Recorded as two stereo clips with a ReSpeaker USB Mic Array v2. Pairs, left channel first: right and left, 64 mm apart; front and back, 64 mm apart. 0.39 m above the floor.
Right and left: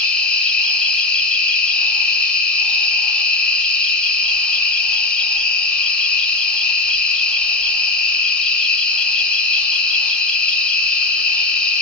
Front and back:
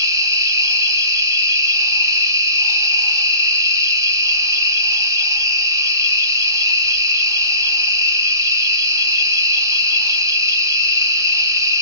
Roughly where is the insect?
Behind.